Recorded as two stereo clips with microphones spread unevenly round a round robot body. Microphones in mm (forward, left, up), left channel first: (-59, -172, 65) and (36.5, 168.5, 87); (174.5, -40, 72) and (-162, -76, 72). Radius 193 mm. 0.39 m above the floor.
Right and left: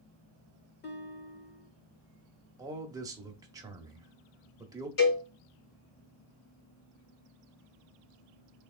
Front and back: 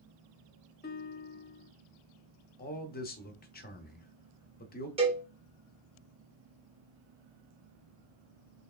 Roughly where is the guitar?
Ahead right.